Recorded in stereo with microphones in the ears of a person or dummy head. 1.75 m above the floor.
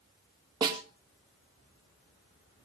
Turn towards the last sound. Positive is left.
turn(degrees=-30)  # may be behind; listen again after turning